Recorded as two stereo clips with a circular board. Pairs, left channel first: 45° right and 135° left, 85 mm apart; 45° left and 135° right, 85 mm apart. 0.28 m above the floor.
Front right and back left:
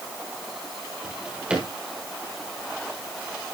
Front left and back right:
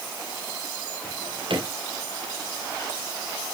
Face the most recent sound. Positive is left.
turn(degrees=-145)